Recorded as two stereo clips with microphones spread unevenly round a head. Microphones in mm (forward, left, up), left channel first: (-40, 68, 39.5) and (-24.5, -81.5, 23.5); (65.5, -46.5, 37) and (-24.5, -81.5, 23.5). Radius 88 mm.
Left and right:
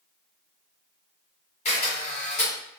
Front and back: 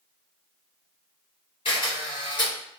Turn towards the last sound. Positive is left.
turn(degrees=55)